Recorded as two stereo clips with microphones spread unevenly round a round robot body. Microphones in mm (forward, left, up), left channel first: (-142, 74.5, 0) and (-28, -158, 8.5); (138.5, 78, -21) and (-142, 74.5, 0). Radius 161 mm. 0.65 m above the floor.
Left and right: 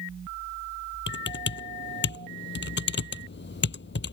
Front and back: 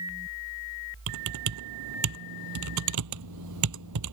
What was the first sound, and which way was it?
Typing on a keyboard, 165° left.